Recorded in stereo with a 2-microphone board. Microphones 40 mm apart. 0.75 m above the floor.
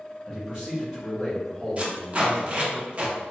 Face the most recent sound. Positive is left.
turn(degrees=-35)  # may be behind; listen again after turning